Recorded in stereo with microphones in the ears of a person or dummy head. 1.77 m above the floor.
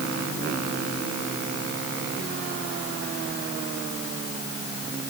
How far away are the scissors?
No scissors in this recording.